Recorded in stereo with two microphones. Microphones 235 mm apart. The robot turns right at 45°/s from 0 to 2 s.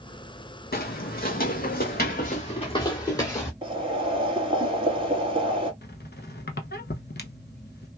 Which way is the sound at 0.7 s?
40° left (ahead or behind).